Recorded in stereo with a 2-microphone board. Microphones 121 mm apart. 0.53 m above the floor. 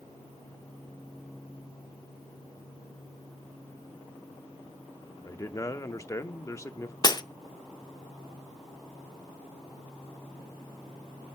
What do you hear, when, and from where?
5.2 s a man speaking: 25° left (ahead or behind), 0.8 m
7.0 s breaking glass: 35° left (ahead or behind), 0.6 m